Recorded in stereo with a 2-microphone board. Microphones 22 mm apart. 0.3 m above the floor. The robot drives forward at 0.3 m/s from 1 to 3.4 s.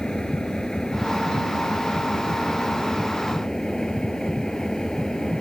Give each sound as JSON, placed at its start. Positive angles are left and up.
{"t": 0.0, "sound": "an engine running", "side_deg": 35}